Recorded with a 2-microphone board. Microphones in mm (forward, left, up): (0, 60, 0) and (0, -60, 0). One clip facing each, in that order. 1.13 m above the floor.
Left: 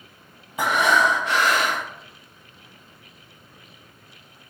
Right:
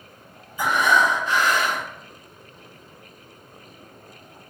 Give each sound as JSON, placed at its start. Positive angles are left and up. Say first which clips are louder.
{"t": 0.6, "sound": "breathing", "louder": "even", "side_deg": 65, "distance_m": 0.7}